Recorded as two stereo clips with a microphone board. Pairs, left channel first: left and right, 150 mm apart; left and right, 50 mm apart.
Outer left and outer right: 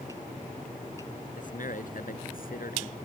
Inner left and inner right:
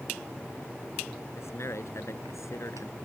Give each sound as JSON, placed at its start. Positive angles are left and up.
{"t": 1.4, "sound": "a man speaking", "side_deg": 65}